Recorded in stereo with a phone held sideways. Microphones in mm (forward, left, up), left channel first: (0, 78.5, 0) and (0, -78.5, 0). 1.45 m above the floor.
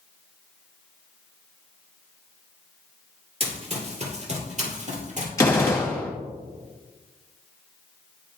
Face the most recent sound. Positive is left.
turn(degrees=20)  # may be behind; listen again after turning